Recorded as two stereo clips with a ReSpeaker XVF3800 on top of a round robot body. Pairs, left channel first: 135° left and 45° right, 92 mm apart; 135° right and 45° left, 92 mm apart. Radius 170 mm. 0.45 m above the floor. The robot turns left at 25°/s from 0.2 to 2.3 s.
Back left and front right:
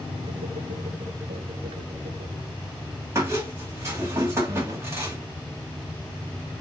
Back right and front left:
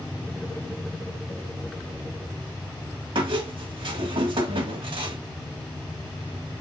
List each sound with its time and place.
3.1 s a squeak: 15° left, 1.7 m